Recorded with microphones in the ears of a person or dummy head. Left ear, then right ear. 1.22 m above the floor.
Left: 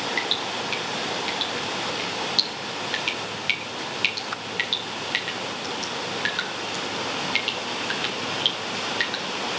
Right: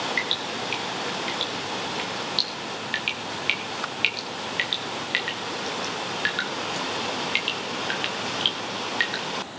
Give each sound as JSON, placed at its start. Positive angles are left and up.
{"t": 0.2, "sound": "dripping", "side_deg": -15, "distance_m": 3.5}